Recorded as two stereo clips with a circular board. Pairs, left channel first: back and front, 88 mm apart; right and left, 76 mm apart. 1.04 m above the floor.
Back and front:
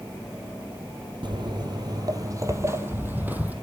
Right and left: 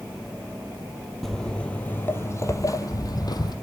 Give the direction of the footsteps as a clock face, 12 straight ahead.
12 o'clock.